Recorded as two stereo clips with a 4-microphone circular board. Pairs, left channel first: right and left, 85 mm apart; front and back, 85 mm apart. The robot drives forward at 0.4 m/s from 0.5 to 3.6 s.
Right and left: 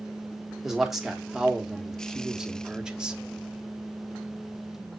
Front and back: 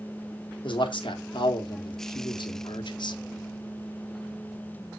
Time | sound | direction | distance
0.6 | a man speaking | 5° left | 2.0 m